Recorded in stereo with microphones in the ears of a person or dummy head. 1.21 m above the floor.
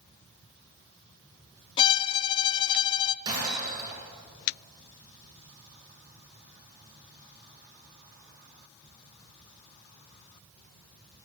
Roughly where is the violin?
Left.